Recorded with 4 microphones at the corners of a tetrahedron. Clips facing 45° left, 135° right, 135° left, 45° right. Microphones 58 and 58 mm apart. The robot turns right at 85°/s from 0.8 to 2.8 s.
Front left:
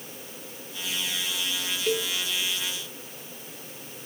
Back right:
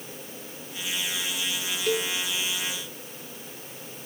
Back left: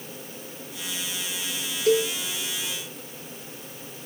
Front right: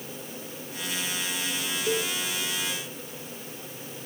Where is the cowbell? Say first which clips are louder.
Back right 1 dB, back left 8 dB; 135° left, 0.9 m; by 2.1 s 155° left, 0.9 m.